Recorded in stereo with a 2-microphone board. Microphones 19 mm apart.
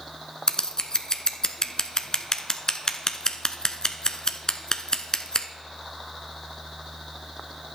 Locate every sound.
0.5 s scissors: 40° left (ahead or behind), 0.8 m